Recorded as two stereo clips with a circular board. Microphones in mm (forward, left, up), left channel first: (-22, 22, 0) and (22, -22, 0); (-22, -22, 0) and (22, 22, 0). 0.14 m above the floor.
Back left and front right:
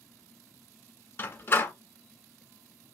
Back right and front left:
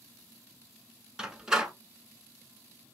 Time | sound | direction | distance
1.2 | a door slam | 115° left | 1.1 m